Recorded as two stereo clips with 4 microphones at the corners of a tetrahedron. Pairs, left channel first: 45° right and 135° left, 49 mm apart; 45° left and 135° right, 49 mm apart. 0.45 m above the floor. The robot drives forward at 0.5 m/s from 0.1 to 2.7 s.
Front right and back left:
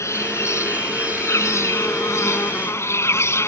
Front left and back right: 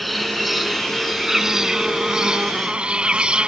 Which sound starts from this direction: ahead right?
An insect, at 0.0 s.